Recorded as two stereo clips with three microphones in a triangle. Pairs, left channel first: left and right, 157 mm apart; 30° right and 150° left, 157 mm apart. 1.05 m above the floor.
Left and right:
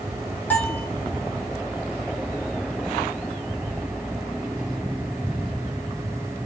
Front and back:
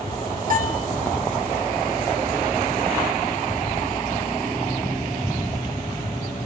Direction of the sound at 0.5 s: 170° left.